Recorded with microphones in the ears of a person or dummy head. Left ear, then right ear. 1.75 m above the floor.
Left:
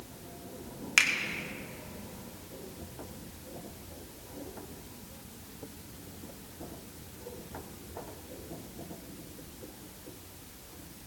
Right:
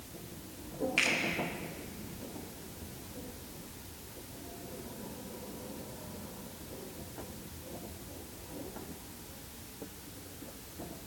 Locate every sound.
1.0 s a finger snap: 60° left (ahead or behind), 2.0 m